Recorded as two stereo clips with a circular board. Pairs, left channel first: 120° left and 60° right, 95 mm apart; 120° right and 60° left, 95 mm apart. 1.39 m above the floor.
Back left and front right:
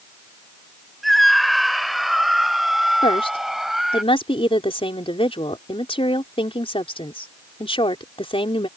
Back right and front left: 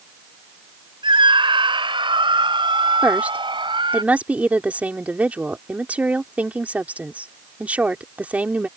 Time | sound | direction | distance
1.0 | a scream | 30° left | ?
3.0 | a woman speaking | 135° left | ?